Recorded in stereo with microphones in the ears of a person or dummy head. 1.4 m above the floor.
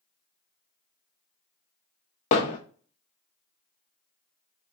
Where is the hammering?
30° left (ahead or behind), 0.6 m.